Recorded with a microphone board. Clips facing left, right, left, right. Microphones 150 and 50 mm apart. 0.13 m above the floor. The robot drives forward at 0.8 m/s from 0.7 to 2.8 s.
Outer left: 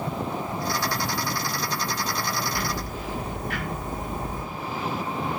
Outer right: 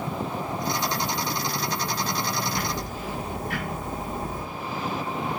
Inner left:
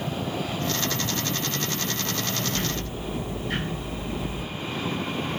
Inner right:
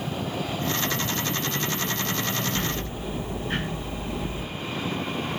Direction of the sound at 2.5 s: 30° right (ahead or behind).